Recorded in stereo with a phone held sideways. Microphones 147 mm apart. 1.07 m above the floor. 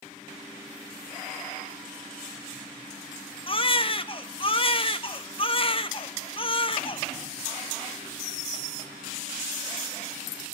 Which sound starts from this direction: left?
A baby crying, at 3.5 s.